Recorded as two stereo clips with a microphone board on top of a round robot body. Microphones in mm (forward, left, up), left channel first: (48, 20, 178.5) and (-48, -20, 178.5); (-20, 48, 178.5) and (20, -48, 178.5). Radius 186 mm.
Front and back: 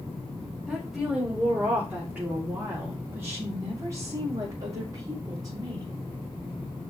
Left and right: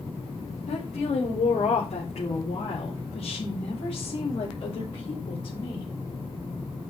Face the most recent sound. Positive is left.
turn(degrees=150)